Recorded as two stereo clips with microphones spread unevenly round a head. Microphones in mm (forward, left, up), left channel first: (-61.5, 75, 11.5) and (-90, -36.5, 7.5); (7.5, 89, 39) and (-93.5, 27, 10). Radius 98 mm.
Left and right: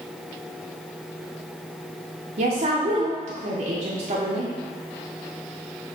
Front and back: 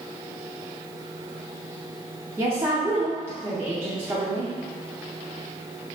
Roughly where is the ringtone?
I don't hear a ringtone.